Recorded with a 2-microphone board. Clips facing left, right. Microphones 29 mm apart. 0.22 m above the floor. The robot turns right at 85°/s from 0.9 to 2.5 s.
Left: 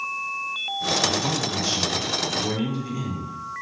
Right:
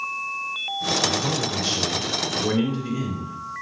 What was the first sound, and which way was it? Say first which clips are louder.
A man speaking: even; straight behind.